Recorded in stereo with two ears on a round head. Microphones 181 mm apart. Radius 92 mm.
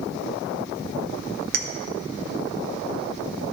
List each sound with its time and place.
1.5 s a clink: 45° right (ahead or behind), 0.6 m